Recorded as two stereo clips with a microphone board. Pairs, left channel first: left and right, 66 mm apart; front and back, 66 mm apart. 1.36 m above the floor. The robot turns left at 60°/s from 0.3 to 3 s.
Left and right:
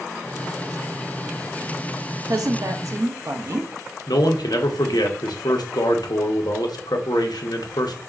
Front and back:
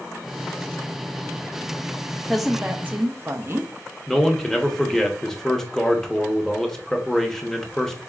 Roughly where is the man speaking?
Left.